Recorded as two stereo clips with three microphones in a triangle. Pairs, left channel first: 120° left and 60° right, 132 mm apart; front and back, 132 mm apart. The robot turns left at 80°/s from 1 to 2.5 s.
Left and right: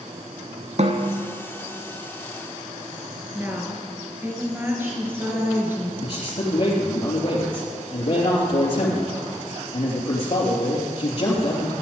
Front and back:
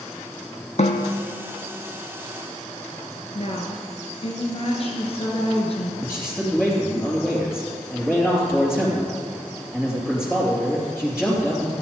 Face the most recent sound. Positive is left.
turn(degrees=95)